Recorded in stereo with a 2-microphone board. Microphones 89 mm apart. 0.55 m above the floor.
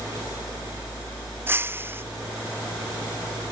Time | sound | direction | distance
1.5 | breaking glass | 25° right (ahead or behind) | ?